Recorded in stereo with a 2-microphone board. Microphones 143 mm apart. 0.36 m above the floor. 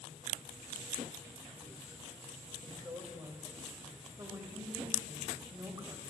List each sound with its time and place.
2.6 s a woman speaking: 25° right (ahead or behind), 1.9 m